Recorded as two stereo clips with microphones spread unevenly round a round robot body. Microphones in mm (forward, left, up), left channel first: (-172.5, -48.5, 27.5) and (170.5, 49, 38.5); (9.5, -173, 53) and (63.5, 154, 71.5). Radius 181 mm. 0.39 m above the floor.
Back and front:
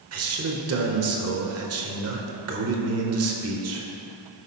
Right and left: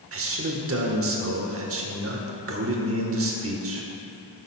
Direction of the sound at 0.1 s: 45° left.